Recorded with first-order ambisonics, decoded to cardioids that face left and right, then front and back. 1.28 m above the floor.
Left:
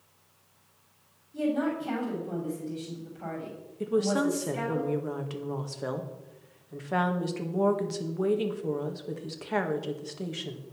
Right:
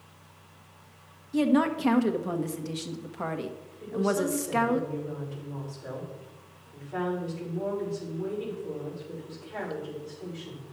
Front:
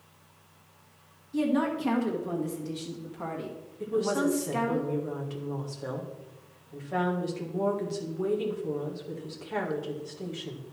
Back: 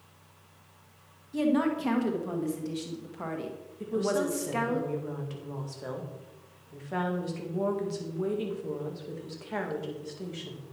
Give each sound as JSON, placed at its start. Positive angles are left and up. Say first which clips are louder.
{"t": 1.3, "sound": "a woman speaking", "louder": "right 4 dB, back 1 dB", "azimuth_deg": -100, "distance_m": 1.6}
{"t": 3.8, "sound": "a woman speaking", "louder": "left 1 dB, front 1 dB", "azimuth_deg": 95, "distance_m": 1.8}